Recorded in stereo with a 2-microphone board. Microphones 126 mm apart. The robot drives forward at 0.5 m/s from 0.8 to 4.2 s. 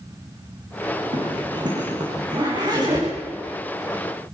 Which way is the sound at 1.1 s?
40° right (ahead or behind).